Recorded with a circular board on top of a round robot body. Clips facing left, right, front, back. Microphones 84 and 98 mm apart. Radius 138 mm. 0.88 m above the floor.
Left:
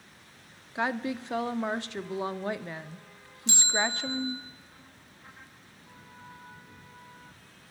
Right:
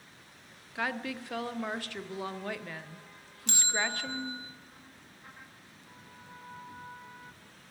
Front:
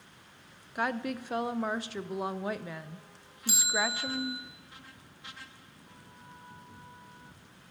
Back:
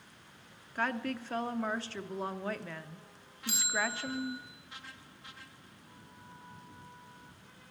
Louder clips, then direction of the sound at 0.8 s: Left 4 dB, front 2 dB; 60° left.